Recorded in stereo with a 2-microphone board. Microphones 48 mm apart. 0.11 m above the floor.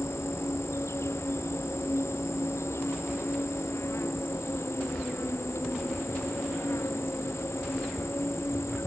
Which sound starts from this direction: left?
An insect, at 0.0 s.